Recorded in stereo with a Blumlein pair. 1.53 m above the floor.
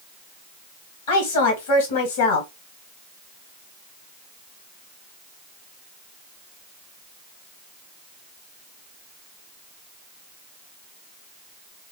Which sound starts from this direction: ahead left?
A woman speaking, at 1.1 s.